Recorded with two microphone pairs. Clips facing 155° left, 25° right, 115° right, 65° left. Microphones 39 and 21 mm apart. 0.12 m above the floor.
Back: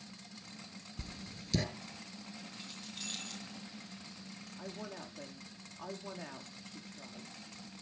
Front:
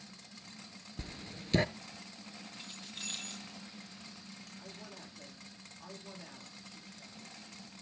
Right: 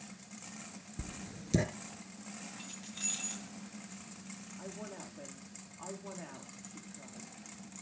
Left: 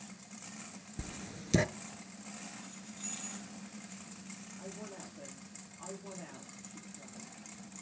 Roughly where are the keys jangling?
Right.